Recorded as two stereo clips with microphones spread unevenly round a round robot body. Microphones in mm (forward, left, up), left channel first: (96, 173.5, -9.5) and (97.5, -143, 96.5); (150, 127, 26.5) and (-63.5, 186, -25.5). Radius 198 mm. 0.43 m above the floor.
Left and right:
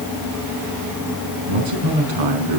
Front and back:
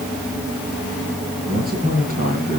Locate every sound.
1.5 s a man speaking: 90° right, 5 m